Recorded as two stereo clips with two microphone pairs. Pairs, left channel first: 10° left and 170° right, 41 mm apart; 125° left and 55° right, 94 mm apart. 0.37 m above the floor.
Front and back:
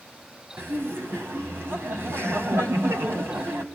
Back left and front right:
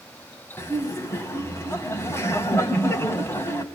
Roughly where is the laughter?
Behind.